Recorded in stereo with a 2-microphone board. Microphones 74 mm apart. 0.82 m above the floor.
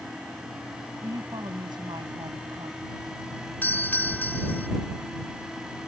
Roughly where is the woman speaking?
Right.